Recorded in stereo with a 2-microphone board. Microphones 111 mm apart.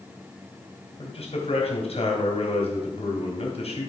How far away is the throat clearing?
I don't hear throat clearing.